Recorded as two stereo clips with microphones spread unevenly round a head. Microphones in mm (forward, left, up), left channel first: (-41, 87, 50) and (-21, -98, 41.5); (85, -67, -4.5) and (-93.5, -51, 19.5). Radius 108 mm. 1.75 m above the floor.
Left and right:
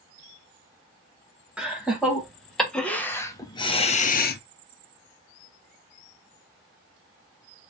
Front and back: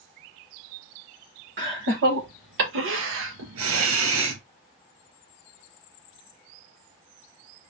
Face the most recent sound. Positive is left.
turn(degrees=130)